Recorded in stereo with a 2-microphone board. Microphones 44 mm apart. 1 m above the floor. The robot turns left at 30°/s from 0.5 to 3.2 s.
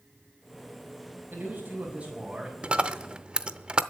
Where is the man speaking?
130° right, 5.5 m; by 2.5 s 170° right, 5.5 m.